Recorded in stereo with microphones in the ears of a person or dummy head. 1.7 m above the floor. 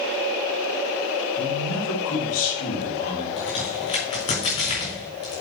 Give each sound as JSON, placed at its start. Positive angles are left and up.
{"t": 1.4, "sound": "a man speaking", "side_deg": 85, "distance_m": 4.0}
{"t": 3.4, "sound": "a crack", "side_deg": 40, "distance_m": 4.0}